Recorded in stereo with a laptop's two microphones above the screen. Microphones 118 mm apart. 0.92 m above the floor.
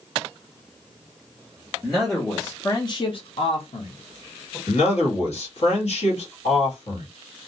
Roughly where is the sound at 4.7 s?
Left.